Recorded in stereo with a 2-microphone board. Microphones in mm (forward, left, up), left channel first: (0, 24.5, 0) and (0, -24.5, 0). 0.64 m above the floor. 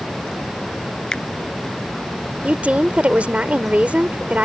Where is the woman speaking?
30° right (ahead or behind).